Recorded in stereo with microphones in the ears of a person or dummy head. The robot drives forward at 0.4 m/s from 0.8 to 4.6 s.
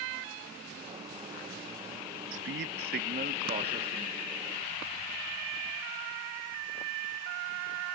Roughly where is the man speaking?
Right.